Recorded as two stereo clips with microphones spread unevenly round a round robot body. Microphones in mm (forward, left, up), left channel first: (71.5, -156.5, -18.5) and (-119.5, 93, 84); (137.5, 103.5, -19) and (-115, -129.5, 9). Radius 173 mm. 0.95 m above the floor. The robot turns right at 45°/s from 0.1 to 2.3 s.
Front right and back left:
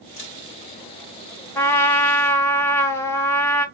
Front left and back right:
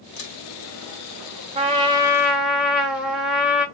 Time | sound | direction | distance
0.2 | a camera shutter | straight ahead | 1.8 m
1.6 | a trumpet | 75° right | 0.9 m